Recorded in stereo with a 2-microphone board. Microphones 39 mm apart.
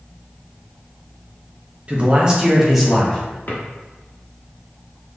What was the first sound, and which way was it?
A man speaking, 35° right (ahead or behind).